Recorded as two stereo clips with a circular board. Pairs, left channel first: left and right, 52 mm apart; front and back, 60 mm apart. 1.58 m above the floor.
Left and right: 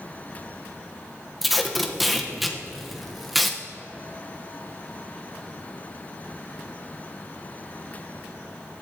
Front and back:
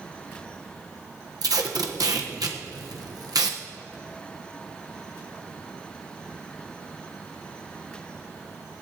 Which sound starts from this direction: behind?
Tape being pulled, at 1.4 s.